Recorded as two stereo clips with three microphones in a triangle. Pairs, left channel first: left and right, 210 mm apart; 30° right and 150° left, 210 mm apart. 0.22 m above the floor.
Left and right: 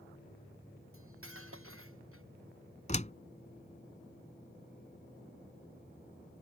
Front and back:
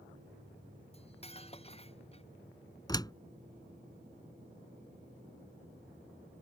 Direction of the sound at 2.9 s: 40° left.